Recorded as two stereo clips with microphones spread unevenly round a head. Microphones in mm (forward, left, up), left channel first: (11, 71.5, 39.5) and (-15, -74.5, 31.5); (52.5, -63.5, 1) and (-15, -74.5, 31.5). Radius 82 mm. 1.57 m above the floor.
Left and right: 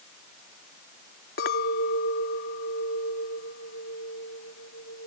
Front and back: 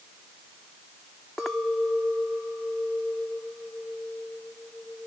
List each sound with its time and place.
1.4 s a clink: 105° left